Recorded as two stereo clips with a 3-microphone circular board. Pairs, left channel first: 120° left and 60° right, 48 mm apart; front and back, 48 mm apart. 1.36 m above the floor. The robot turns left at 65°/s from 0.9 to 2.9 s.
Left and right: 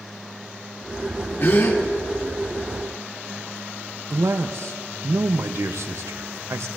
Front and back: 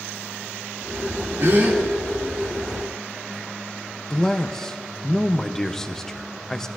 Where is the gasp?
160° left, 2 m; by 1.8 s 135° left, 2 m.